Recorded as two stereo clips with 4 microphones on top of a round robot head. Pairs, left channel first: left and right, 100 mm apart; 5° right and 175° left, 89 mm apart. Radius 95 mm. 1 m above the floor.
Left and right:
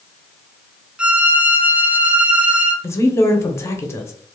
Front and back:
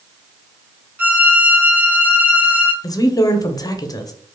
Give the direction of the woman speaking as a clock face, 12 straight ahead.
11 o'clock.